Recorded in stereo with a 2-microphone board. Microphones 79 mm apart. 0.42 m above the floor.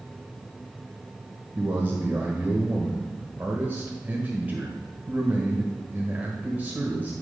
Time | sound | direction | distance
1.6 | a man speaking | 25° right (ahead or behind) | 1.6 m